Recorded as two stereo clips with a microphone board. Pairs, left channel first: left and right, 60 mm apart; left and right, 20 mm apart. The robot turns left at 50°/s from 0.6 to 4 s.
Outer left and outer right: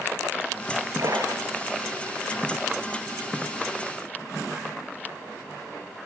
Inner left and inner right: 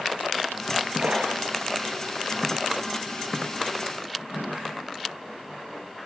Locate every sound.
1.0 s a splash: 65° right (ahead or behind), 4.5 m; by 2.0 s 15° right (ahead or behind), 4.5 m